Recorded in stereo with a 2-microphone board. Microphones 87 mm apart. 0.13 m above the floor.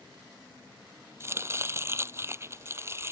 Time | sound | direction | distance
1.2 | chopping | 30° right (ahead or behind) | ?